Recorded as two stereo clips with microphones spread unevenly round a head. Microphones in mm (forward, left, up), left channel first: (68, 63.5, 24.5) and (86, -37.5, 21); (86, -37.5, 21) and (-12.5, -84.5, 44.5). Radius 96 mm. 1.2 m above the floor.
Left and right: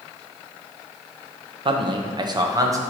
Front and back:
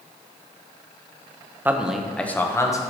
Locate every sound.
1.6 s a man speaking: 75° right, 0.9 m; by 2.8 s 25° right, 1.2 m